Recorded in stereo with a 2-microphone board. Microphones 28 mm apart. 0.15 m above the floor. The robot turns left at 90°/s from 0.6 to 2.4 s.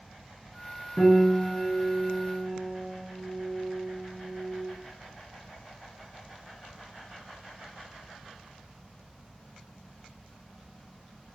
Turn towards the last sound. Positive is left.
turn(degrees=-25)